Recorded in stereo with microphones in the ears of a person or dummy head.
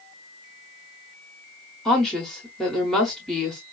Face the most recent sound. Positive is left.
turn(degrees=0)  # may be behind; listen again after turning